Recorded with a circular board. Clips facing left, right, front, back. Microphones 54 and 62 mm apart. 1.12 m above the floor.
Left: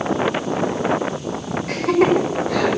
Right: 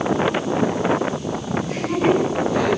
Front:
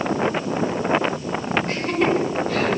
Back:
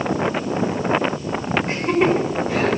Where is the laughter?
110° left, 5 m; by 2.8 s 105° left, 5.5 m.